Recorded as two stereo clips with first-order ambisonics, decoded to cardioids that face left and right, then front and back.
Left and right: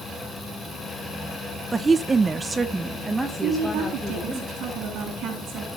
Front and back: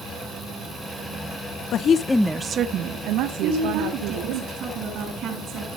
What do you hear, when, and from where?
1.7 s a woman speaking: 20° right, 0.8 m; by 4.4 s 175° right, 2 m
3.4 s a woman speaking: 130° right, 8 m